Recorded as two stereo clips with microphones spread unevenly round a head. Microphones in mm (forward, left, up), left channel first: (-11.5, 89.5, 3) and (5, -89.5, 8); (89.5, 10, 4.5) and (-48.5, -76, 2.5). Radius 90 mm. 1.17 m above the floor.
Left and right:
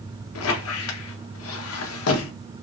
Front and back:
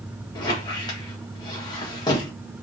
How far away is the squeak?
About 0.6 m.